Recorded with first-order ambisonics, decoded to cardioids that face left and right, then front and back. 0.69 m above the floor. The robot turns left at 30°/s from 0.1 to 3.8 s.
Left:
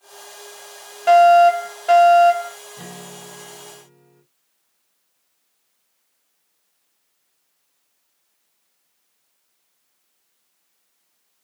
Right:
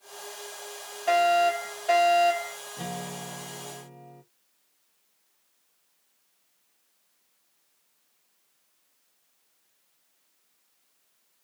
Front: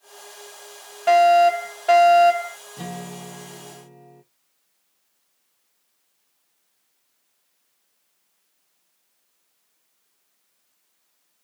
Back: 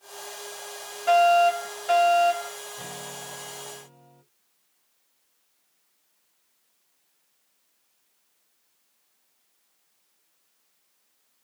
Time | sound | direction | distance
1.1 | a fire alarm | 60° left | 2.5 m
2.8 | a guitar | 10° right | 1.9 m